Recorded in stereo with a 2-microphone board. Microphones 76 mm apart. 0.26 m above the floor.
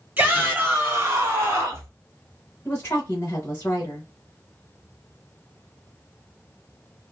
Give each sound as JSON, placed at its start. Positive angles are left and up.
{"t": 0.2, "sound": "a shout", "side_deg": -25, "distance_m": 1.4}
{"t": 2.6, "sound": "a woman speaking", "side_deg": 30, "distance_m": 1.0}